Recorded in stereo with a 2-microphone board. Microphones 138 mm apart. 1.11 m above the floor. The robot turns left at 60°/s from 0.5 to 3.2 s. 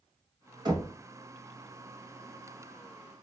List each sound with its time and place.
0.7 s knocking: 30° right (ahead or behind), 1.0 m; by 0.9 s 15° right (ahead or behind), 1.0 m